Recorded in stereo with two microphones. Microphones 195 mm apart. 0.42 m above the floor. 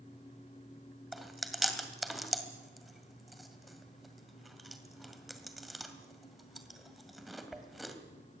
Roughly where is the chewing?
Centre.